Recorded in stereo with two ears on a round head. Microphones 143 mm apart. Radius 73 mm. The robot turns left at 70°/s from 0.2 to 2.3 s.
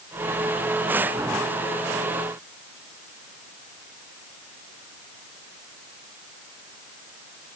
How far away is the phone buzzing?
I don't hear a phone buzzing.